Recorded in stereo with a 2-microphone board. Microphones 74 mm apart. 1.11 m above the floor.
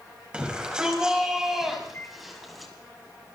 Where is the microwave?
30° left (ahead or behind), 4 m.